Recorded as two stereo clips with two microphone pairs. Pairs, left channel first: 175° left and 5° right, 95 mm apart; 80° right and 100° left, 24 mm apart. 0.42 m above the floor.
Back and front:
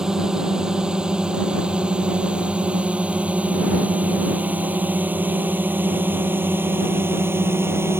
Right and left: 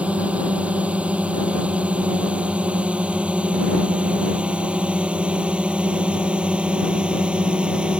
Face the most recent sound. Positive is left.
turn(degrees=60)